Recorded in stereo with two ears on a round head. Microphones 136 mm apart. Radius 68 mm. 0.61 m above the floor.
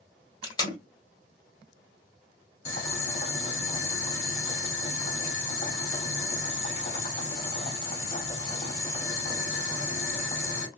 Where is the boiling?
45° left (ahead or behind), 1.8 m.